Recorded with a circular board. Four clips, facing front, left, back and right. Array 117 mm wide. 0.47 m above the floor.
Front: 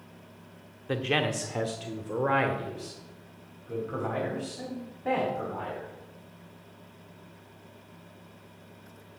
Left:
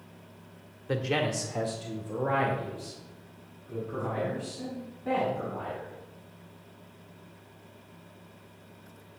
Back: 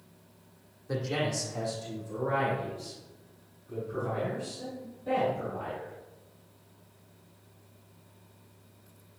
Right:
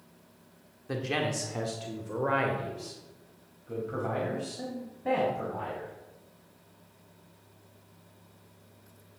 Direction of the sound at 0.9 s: 20° left.